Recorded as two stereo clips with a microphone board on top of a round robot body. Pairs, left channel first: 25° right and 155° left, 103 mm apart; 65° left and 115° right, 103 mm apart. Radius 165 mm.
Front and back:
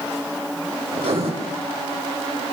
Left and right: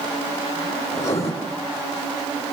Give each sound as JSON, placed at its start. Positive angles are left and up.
{"t": 0.9, "sound": "writing", "azimuth_deg": 130, "distance_m": 6.0}